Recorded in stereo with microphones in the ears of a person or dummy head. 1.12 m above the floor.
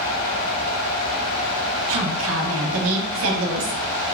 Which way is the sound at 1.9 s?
70° right (ahead or behind).